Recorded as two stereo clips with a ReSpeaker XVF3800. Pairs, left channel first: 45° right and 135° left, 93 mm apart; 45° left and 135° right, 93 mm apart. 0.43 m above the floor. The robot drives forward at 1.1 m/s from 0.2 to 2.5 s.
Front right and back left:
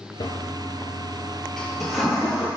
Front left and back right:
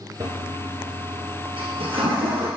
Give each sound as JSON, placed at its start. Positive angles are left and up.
{"t": 0.2, "sound": "a toilet flushing", "azimuth_deg": -85, "distance_m": 1.7}